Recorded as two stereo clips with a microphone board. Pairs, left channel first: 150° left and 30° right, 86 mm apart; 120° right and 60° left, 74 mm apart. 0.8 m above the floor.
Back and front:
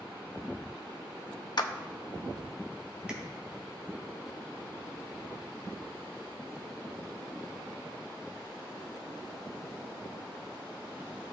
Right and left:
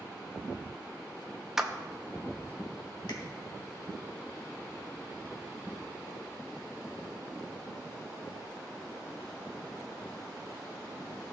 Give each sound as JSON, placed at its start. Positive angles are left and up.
{"t": 1.6, "sound": "a clap", "azimuth_deg": 145, "distance_m": 0.6}
{"t": 3.1, "sound": "tapping", "azimuth_deg": -110, "distance_m": 1.8}